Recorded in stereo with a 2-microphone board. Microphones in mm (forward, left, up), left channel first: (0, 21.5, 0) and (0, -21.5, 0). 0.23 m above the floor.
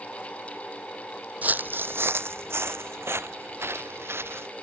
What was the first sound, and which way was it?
Footsteps, 40° right (ahead or behind).